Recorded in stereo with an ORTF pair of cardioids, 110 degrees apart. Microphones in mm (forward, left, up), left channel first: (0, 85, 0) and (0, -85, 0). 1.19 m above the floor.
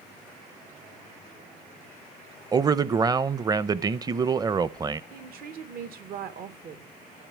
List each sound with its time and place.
2.5 s a man speaking: 20° right, 0.7 m
5.1 s a woman speaking: 65° right, 1.5 m